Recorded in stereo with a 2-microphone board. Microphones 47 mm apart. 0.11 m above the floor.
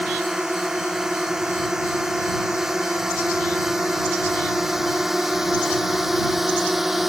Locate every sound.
0.0 s a drone: 10° right (ahead or behind); by 7.1 s 5° right (ahead or behind)